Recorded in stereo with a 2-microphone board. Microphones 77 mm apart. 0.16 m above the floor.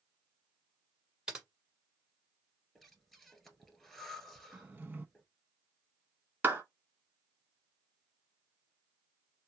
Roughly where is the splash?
I don't hear a splash.